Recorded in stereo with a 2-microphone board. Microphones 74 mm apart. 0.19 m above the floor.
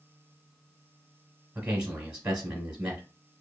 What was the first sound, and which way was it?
A man speaking, 15° right (ahead or behind).